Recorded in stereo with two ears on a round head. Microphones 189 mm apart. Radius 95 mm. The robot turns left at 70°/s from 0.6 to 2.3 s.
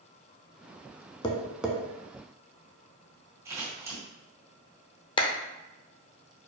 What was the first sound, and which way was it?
Tapping, 25° left (ahead or behind).